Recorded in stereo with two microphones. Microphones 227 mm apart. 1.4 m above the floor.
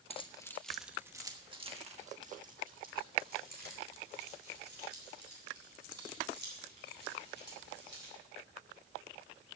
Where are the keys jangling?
25° left (ahead or behind), 0.8 m; by 8.1 s 50° right (ahead or behind), 5.5 m.